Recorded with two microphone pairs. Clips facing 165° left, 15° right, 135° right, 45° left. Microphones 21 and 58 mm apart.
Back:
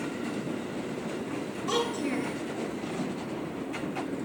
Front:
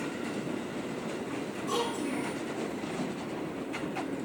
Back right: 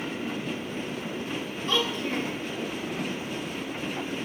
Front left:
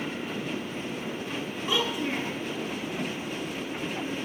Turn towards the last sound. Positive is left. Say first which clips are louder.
# back 3 dB, back right 1 dB
turn(degrees=120)